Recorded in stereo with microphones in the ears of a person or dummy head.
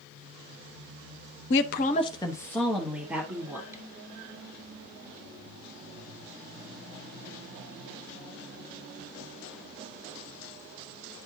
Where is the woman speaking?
70° left (ahead or behind), 0.7 m; by 3.8 s 15° right (ahead or behind), 2 m.